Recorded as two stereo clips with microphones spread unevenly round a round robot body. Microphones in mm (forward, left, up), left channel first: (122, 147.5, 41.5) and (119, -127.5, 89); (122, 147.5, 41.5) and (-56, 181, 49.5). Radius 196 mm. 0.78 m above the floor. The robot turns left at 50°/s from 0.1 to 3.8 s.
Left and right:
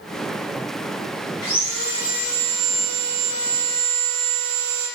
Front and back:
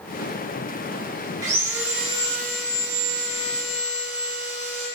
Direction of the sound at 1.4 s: 120° left.